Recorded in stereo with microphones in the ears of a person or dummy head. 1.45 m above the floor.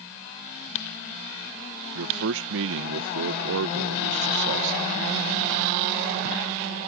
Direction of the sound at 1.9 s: 70° right (ahead or behind).